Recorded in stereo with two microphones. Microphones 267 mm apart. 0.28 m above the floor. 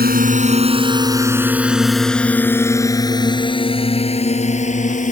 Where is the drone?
35° right (ahead or behind); by 5.1 s 30° left (ahead or behind).